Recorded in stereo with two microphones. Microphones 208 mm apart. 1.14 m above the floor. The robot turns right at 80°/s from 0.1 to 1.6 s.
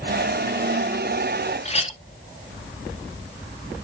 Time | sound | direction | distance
1.6 | a clink | 30° left (ahead or behind) | 0.9 m